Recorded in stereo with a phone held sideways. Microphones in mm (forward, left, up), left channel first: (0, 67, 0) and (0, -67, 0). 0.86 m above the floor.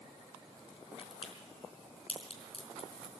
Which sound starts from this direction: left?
A crack, at 1.0 s.